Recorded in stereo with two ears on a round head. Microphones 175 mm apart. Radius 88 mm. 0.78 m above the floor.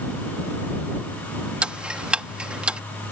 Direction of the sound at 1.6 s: 5° right (ahead or behind).